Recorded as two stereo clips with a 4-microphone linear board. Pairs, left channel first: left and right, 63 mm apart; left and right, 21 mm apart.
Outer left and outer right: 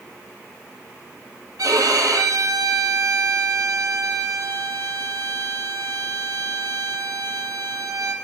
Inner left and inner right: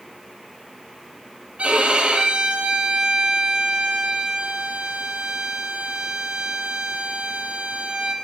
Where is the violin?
80° right, 1.8 m.